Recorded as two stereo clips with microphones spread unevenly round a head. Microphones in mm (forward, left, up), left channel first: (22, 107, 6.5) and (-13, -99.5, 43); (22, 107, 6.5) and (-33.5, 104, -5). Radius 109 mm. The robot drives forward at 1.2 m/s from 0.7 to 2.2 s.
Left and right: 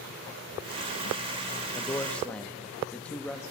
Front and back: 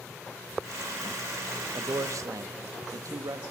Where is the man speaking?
155° left, 0.6 m; by 3.4 s 165° left, 1.1 m.